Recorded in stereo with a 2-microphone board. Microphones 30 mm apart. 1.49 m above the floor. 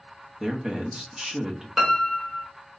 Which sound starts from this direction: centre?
A piano, at 1.8 s.